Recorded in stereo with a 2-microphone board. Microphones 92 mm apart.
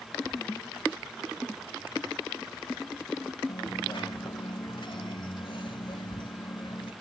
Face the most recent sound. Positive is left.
turn(degrees=65)  # may be behind; listen again after turning